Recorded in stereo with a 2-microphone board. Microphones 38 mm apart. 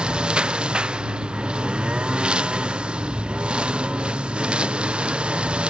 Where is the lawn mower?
30° right (ahead or behind).